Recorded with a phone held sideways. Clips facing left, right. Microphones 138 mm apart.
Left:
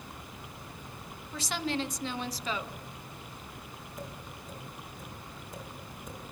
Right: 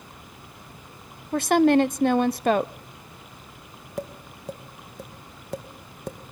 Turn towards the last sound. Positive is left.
turn(degrees=-75)  # may be behind; listen again after turning